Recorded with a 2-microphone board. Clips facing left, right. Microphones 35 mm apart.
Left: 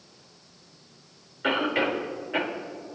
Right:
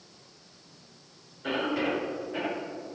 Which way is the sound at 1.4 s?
70° left (ahead or behind).